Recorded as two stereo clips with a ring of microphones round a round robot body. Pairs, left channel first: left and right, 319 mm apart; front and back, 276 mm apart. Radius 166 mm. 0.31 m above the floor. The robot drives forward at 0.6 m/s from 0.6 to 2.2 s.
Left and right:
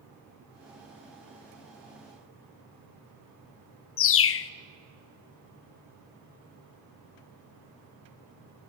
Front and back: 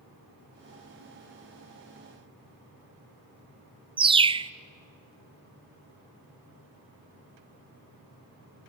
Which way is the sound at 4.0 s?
115° left.